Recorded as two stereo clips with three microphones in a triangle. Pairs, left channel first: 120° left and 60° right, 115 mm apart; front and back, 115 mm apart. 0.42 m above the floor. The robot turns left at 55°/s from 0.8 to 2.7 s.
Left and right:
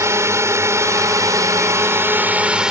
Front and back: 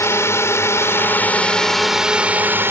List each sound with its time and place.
0.0 s a drone: 30° right; by 2.7 s 135° right